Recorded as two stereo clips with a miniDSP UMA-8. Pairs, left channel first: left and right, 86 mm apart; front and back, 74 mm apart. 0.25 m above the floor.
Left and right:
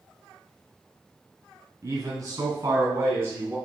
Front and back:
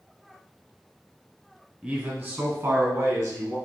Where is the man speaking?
115° right, 1.5 m; by 3.5 s 145° right, 3 m.